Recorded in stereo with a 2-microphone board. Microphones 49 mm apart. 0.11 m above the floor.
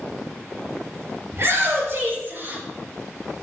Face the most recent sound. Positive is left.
turn(degrees=-40)  # may be behind; listen again after turning